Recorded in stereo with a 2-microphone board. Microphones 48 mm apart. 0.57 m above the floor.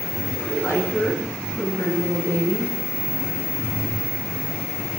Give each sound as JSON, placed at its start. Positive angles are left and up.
{"t": 0.4, "sound": "a woman speaking", "side_deg": 60, "distance_m": 6.5}